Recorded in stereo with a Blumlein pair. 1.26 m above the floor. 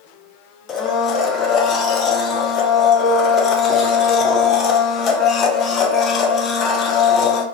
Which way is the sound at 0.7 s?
30° left.